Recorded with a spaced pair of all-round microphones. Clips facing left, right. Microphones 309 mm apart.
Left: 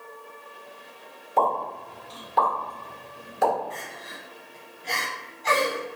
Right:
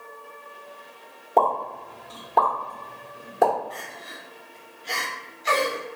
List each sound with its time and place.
1.4 s a pop: 60° right (ahead or behind), 1.6 m
3.7 s crying: 60° left (ahead or behind), 0.9 m